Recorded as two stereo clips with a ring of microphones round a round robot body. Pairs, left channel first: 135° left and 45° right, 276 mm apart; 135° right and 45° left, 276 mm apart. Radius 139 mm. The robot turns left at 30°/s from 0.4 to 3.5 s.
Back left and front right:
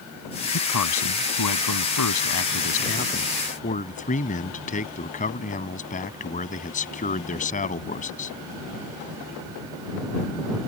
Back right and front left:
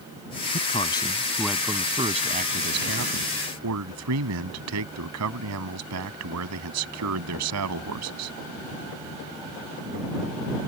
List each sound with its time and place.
0.5 s a man speaking: 160° left; by 8.4 s 75° left